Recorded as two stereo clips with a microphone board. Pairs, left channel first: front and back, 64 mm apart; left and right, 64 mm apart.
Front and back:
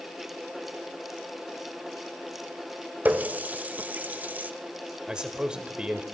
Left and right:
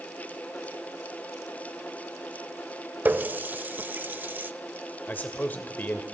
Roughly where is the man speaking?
Behind left.